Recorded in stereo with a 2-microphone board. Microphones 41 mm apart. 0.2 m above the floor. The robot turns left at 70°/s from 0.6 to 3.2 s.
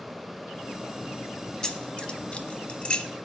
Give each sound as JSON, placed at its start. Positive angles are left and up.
{"t": 1.6, "sound": "keys jangling", "side_deg": 15, "distance_m": 0.7}